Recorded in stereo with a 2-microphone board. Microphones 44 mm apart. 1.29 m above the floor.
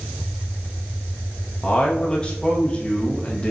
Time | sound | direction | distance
1.6 | a man speaking | 25° left (ahead or behind) | 0.7 m